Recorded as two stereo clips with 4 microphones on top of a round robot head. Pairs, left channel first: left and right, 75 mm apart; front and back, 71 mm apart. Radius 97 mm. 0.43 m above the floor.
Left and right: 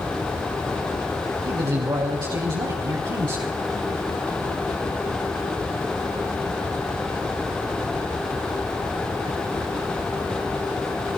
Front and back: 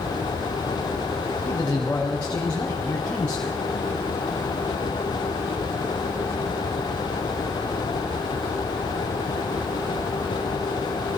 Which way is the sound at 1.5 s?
70° right.